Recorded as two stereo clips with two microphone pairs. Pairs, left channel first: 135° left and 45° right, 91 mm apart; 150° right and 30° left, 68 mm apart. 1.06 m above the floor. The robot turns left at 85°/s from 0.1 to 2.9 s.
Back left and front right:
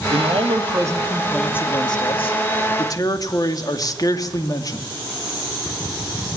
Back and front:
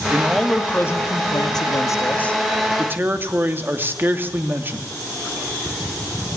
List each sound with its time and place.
0.1 s a man speaking: 35° right, 2.5 m; by 4.9 s 90° left, 2.5 m